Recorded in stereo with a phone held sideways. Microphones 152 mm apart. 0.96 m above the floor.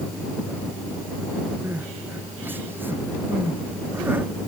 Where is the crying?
15° right (ahead or behind).